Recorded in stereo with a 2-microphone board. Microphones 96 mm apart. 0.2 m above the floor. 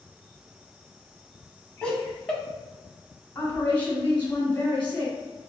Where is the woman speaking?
20° left (ahead or behind), 1.2 m.